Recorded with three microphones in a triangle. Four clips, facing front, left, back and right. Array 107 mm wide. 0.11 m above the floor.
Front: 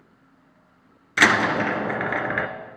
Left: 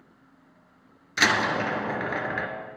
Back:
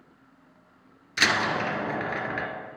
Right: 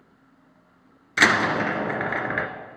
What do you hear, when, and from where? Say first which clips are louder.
1.2 s a door slam: right 3 dB, front 6 dB; 35° right, 1.1 m